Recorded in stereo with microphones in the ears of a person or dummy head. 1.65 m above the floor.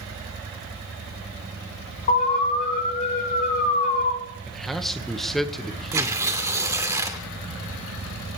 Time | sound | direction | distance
2.1 | an alarm | 45° left (ahead or behind) | 3 m
4.5 | a man speaking | 5° right (ahead or behind) | 1.7 m
5.9 | tearing paper | 20° right (ahead or behind) | 1.9 m